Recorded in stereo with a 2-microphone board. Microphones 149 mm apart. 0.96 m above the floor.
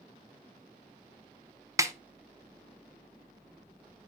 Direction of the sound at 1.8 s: 20° right (ahead or behind).